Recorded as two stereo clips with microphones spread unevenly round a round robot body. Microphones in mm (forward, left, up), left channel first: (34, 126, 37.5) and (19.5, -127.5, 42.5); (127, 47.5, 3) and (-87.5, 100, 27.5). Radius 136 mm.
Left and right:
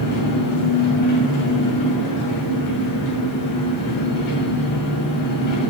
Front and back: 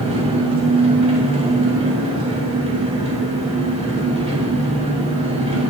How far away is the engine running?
About 2.5 m.